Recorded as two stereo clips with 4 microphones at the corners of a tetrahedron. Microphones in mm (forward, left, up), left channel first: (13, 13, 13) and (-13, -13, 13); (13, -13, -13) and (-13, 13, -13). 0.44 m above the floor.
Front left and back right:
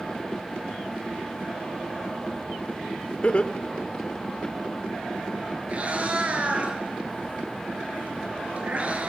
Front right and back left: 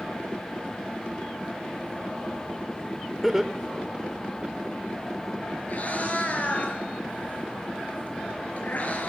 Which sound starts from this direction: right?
A cat meowing, at 5.7 s.